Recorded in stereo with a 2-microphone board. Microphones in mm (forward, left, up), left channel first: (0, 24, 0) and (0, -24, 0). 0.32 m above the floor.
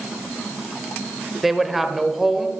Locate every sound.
1.4 s a woman speaking: 5° right (ahead or behind), 1.2 m